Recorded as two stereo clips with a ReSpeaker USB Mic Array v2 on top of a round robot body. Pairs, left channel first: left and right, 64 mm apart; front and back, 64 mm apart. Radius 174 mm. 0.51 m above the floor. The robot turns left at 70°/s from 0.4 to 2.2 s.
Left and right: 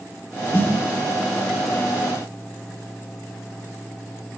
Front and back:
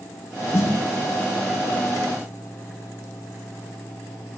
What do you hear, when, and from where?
0.5 s a snare drum: 40° left, 10 m; by 0.7 s 25° left, 10 m